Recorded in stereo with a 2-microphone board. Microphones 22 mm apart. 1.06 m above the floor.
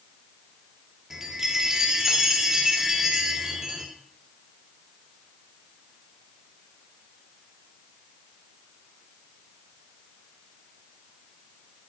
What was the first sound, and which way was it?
A chime, 20° right (ahead or behind).